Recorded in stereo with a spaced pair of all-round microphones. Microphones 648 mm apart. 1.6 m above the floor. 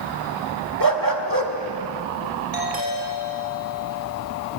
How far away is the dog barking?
About 1.4 m.